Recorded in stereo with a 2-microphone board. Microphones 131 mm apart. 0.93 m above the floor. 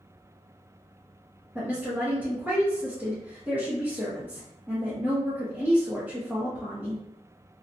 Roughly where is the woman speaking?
Centre.